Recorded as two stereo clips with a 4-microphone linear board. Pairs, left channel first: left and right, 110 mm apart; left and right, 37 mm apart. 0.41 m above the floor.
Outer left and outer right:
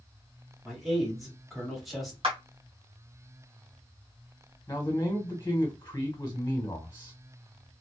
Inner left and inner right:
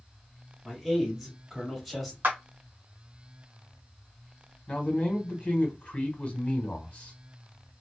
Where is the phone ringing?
No phone ringing in this recording.